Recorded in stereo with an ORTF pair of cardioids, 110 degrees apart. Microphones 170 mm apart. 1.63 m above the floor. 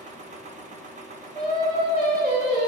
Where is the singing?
60° right, 2 m.